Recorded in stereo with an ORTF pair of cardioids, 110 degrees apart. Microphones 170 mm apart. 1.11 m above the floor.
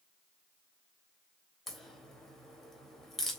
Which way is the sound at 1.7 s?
Straight ahead.